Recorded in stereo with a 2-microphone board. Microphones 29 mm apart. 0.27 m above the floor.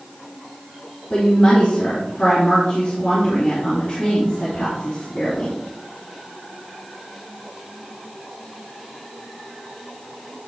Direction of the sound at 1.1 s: 50° left (ahead or behind).